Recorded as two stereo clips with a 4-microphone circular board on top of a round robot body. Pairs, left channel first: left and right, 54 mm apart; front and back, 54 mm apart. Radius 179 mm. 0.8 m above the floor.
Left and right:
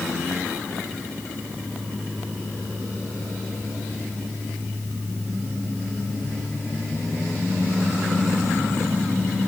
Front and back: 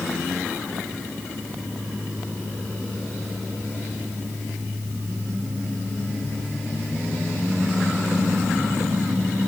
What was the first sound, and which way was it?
Only background noise.